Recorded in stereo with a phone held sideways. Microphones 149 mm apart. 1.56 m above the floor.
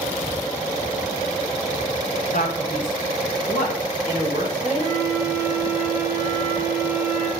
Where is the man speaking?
60° left (ahead or behind), 1.4 m.